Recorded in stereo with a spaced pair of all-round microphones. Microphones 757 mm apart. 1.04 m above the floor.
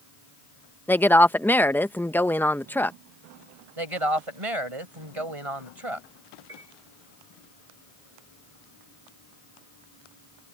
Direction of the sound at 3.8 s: 45° right (ahead or behind).